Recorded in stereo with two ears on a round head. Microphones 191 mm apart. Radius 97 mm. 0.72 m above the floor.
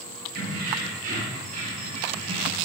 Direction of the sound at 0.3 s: 45° right (ahead or behind).